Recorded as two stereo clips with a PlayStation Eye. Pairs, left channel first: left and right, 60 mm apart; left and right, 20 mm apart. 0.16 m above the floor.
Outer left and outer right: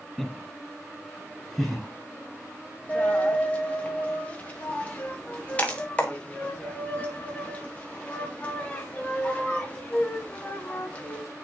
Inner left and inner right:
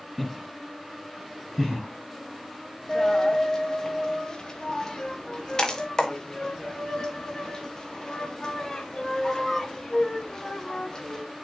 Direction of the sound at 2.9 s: 20° left (ahead or behind).